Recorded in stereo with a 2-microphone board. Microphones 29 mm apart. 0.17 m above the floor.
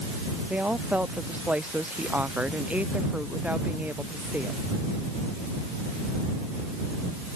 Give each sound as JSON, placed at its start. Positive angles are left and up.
{"t": 0.5, "sound": "a woman speaking", "side_deg": -55}